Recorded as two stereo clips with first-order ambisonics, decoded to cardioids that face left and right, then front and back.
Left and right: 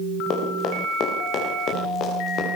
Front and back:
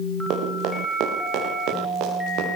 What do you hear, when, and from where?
0.3 s running footsteps: 140° left, 8.5 m; by 2.5 s 145° left, 11 m